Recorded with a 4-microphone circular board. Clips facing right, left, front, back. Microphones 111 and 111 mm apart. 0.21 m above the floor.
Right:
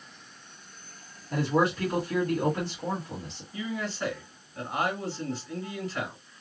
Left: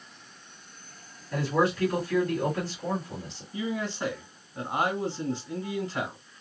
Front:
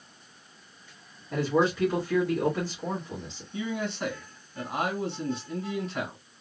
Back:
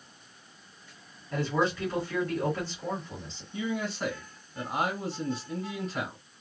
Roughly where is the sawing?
I don't hear sawing.